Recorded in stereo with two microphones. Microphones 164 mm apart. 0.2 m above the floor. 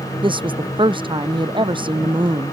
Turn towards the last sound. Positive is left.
turn(degrees=-30)  # may be behind; listen again after turning